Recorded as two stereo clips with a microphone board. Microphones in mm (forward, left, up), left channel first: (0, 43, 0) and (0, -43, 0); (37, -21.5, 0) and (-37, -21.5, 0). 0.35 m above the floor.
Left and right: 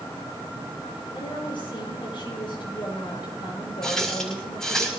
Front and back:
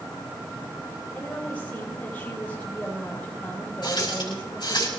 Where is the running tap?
5° left, 5 m.